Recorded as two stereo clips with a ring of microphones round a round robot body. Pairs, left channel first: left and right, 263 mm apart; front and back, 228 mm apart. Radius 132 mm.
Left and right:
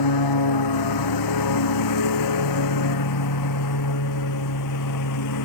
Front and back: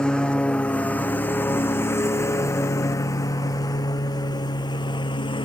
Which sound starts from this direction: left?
A lawn mower, at 0.0 s.